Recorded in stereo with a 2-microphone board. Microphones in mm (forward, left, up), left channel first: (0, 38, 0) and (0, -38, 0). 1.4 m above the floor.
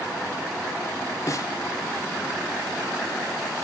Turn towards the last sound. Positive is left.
turn(degrees=45)  # may be behind; listen again after turning